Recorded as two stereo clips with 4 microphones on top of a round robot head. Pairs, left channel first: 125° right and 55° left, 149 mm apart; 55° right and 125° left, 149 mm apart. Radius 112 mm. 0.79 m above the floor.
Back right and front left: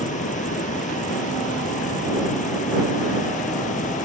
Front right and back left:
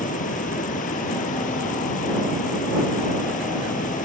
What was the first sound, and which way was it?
Running water, 90° right.